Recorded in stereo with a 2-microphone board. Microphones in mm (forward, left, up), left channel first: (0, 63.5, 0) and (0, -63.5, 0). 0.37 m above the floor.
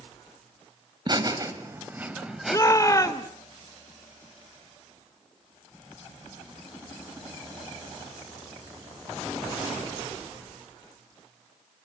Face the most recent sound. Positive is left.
turn(degrees=25)  # may be behind; listen again after turning